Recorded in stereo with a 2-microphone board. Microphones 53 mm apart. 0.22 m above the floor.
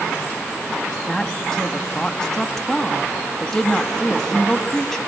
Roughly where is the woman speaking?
Centre.